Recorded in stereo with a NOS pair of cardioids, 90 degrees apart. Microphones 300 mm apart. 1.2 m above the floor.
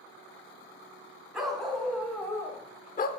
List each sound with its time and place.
1.3 s a dog barking: straight ahead, 3 m; by 3.1 s 50° left, 1.0 m